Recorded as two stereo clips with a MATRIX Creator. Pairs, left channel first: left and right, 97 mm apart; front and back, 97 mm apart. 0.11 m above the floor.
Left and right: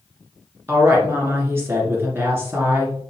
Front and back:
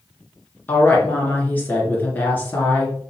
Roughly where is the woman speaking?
Ahead right.